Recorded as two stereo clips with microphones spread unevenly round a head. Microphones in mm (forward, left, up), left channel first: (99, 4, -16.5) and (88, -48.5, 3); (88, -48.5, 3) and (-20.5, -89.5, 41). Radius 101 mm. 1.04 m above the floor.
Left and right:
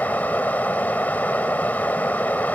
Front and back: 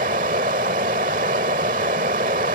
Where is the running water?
160° left.